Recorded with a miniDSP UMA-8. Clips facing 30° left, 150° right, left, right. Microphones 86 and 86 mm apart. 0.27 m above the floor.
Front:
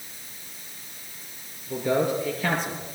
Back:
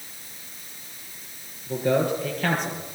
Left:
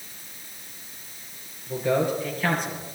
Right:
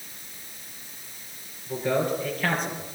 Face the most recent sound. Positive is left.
turn(degrees=180)